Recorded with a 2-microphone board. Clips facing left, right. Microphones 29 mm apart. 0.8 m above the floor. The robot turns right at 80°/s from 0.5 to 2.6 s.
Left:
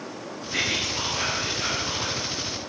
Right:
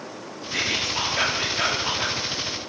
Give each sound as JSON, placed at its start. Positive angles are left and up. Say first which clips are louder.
{"t": 0.5, "sound": "whispering", "louder": "right 1 dB", "azimuth_deg": 175, "distance_m": 1.9}